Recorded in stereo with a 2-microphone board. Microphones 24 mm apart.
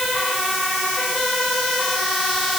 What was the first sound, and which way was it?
Only background noise.